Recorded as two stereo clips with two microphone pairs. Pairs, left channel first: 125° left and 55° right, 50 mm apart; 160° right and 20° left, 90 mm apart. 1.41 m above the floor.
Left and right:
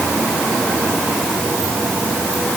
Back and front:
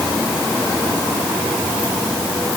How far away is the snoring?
No snoring in this recording.